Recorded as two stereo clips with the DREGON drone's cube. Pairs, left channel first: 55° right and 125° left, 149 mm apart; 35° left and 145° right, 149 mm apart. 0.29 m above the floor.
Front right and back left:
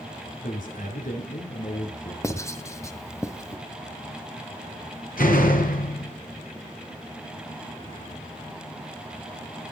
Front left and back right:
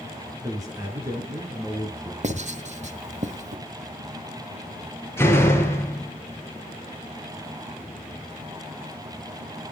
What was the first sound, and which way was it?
A man speaking, 80° right.